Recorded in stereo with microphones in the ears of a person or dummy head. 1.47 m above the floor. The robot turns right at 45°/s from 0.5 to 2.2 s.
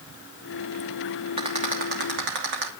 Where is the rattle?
30° right (ahead or behind), 2.5 m; by 2.7 s 65° right (ahead or behind), 2.5 m.